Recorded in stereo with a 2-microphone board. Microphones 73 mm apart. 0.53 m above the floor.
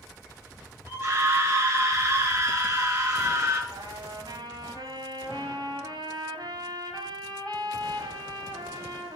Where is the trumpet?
80° right, 4.5 m.